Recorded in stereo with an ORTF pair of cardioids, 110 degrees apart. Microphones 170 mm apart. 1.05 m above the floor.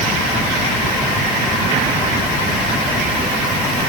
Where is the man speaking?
I don't hear a man speaking.